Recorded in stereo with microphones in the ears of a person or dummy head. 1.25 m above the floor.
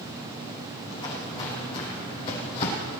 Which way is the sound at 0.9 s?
30° left (ahead or behind).